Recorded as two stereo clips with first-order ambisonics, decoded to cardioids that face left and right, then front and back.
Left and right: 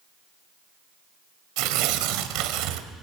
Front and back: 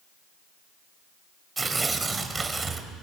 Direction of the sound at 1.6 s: 105° right.